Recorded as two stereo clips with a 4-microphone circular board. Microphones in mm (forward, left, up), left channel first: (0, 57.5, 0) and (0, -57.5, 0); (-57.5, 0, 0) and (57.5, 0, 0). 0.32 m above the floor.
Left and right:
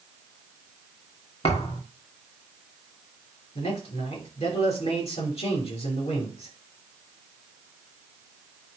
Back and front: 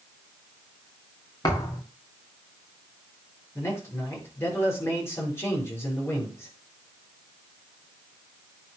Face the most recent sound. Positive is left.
turn(degrees=115)